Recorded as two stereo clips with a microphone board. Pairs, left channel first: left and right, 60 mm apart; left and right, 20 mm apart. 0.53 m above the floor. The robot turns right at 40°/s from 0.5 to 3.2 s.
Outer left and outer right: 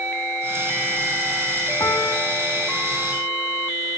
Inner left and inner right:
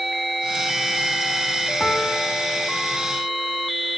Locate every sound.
1.8 s a piano: 115° left, 3.5 m; by 3.2 s 170° left, 3.5 m